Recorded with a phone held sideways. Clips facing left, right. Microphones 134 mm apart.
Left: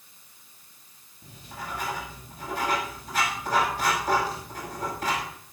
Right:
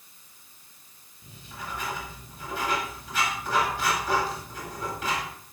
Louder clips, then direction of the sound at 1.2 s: Left 1 dB; 45° left (ahead or behind).